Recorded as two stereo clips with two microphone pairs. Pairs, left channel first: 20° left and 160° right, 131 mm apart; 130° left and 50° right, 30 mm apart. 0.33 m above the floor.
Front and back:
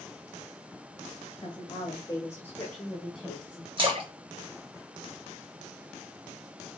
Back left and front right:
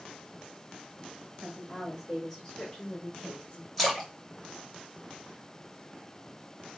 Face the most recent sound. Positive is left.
turn(degrees=-145)